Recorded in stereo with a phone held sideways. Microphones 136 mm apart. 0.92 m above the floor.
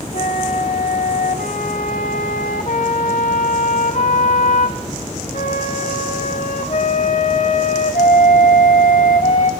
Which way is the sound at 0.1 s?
65° left (ahead or behind).